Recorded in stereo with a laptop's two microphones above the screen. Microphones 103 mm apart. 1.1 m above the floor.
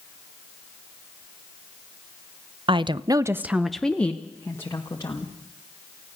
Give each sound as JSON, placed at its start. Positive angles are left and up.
{"t": 2.7, "sound": "a woman speaking", "side_deg": -55, "distance_m": 0.9}